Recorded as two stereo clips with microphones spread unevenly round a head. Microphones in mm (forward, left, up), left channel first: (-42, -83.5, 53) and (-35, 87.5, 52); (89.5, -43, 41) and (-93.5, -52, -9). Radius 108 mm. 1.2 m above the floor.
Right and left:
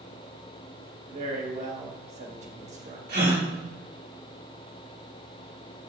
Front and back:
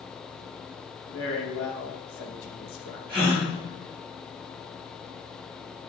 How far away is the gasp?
About 3.5 m.